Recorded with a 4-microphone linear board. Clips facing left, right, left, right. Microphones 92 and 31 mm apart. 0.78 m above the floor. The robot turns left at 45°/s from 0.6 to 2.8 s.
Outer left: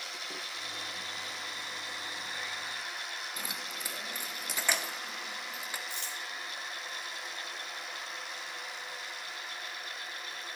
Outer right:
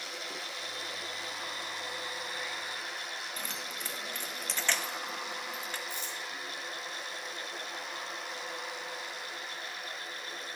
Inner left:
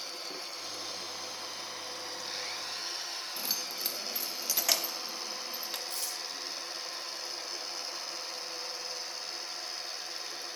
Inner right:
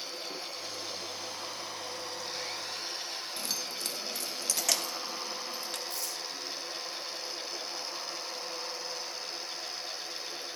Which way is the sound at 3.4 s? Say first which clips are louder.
Even, even; 10° left (ahead or behind).